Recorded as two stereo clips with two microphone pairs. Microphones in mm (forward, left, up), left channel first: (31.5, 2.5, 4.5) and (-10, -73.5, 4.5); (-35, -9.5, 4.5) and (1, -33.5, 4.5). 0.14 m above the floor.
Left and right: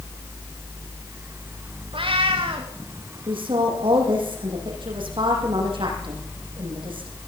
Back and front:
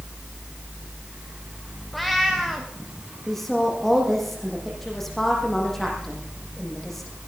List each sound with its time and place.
1.9 s a cat meowing: 125° right, 3.5 m
3.3 s a woman speaking: 130° right, 7.5 m